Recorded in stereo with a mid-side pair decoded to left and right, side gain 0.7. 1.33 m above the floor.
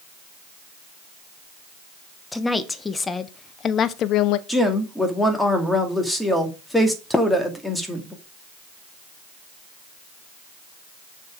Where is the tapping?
15° left, 1.1 m.